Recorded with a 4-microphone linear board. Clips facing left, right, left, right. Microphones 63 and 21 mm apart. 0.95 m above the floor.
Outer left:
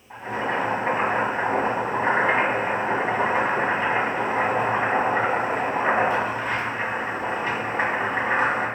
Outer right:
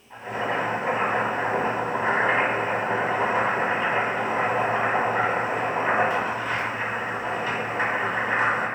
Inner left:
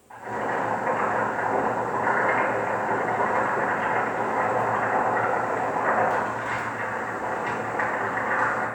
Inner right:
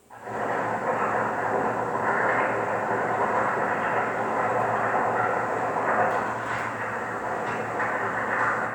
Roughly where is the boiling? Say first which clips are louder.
Outer left 1 dB, inner left 1 dB; left.